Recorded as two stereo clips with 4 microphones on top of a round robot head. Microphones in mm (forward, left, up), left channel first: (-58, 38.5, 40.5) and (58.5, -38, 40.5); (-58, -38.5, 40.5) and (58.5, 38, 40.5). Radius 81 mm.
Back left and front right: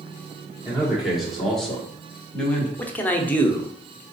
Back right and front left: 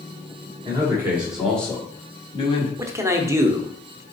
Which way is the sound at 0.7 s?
45° left.